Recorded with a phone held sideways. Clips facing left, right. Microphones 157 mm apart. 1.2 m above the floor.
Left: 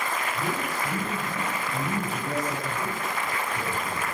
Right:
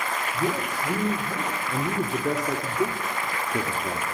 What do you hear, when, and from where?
0.3 s a man speaking: 70° right (ahead or behind), 4.5 m; by 4.0 s 75° right (ahead or behind), 2.5 m